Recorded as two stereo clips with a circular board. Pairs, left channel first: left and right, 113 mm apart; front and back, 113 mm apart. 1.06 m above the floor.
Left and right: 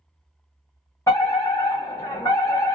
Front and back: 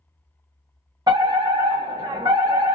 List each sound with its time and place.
1.1 s a fire alarm: 145° left, 2.0 m